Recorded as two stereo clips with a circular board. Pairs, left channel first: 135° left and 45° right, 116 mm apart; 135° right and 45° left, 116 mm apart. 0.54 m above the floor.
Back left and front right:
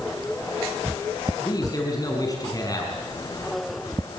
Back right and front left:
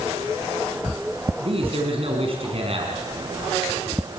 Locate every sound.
1.4 s a man speaking: 80° left, 5.5 m